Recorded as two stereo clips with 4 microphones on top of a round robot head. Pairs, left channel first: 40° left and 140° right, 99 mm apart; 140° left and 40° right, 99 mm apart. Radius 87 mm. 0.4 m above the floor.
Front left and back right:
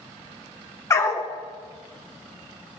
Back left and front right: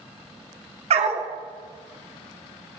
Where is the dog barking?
20° right, 1.6 m.